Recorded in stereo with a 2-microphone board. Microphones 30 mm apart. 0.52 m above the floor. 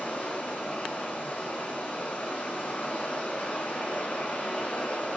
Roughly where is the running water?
Left.